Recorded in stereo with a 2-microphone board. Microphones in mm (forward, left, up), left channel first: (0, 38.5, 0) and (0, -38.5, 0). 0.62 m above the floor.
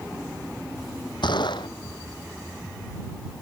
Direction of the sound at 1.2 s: 80° left.